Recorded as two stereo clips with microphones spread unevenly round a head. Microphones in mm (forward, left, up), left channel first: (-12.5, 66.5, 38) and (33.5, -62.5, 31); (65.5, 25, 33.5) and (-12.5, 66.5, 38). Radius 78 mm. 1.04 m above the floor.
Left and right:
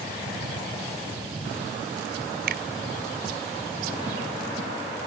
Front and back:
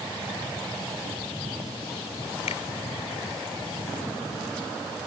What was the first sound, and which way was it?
A finger snap, 50° right.